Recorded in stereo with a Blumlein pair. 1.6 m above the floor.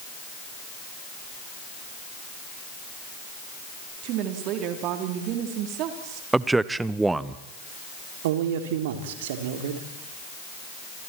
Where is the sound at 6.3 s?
10° right, 0.9 m.